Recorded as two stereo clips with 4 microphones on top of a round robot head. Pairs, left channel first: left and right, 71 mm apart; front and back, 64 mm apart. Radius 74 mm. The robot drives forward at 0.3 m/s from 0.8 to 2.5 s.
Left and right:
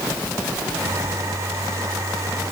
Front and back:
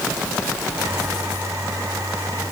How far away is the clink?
No clink in this recording.